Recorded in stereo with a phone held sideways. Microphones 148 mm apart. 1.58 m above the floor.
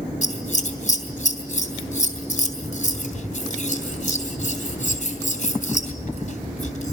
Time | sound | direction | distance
0.2 | scissors | 55° left (ahead or behind) | 3 m